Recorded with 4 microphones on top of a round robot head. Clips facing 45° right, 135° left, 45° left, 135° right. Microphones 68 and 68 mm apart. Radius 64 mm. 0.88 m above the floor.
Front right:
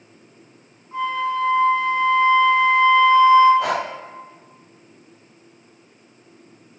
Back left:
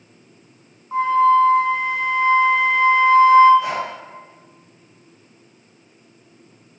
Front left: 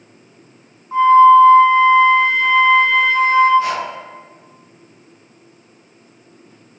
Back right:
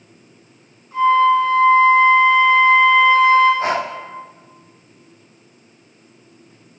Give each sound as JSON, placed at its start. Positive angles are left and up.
{"t": 0.9, "sound": "a flute", "azimuth_deg": 100, "distance_m": 2.0}
{"t": 3.6, "sound": "breathing", "azimuth_deg": -75, "distance_m": 0.5}